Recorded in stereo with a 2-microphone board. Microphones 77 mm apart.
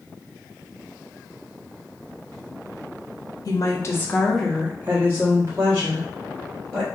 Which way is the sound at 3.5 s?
50° left (ahead or behind).